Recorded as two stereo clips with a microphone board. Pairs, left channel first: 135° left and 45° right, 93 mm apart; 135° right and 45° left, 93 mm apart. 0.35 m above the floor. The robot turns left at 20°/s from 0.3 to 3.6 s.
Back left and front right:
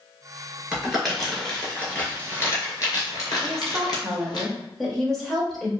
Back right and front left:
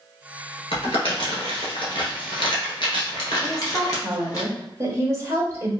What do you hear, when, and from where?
0.7 s crumpling: 125° right, 1.3 m; by 4.4 s 175° left, 1.3 m
3.4 s a woman speaking: 55° left, 0.9 m; by 5.7 s 50° left, 0.9 m